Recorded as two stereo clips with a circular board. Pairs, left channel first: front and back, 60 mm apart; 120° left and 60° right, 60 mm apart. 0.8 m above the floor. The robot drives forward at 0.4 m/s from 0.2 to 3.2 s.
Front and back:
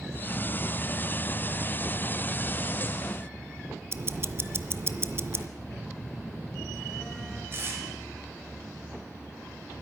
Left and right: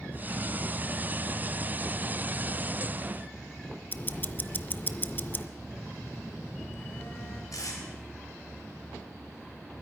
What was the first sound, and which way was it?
Ticking, 160° left.